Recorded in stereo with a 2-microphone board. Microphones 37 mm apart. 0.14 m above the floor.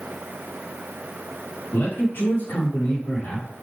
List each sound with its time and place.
1.7 s a man speaking: 65° left (ahead or behind), 4 m; by 3.5 s 60° left (ahead or behind), 5 m